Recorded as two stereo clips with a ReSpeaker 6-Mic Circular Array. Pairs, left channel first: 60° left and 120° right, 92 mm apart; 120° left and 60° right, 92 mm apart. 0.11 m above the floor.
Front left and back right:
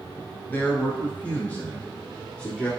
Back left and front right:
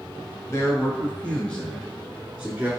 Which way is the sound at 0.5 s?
115° left.